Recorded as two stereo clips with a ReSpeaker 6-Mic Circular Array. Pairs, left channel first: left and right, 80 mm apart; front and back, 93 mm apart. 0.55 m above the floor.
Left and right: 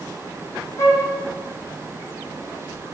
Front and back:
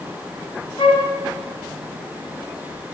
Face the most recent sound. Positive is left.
turn(degrees=35)